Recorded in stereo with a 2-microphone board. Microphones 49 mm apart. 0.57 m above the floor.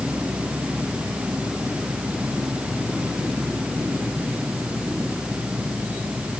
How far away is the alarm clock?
I don't hear an alarm clock.